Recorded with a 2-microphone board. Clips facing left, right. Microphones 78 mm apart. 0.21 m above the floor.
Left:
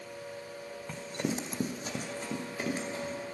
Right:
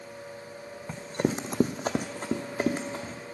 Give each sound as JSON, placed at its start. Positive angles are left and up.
{"t": 0.9, "sound": "running footsteps", "side_deg": -20, "distance_m": 0.8}